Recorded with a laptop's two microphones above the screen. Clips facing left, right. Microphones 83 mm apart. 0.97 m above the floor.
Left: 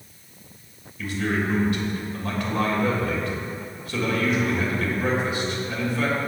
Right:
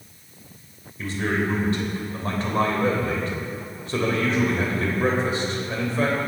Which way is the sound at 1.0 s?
35° right (ahead or behind).